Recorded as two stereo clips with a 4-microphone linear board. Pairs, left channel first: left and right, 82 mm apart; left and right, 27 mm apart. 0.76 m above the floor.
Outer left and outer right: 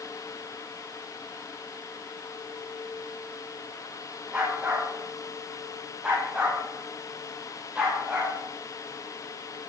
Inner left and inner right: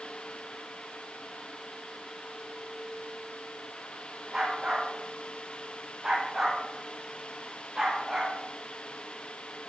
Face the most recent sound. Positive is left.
turn(degrees=-15)  # may be behind; listen again after turning